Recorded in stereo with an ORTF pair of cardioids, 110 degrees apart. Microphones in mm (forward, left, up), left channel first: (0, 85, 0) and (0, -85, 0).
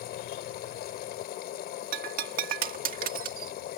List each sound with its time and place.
0.0 s a machine running: 70° left
1.9 s breaking glass: 60° right